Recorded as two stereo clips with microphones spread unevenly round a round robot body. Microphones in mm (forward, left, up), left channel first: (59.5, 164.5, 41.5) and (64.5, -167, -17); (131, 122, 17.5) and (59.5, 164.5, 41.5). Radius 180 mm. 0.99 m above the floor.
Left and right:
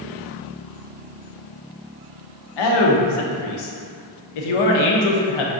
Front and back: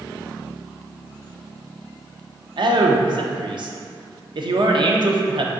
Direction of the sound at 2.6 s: 115° left.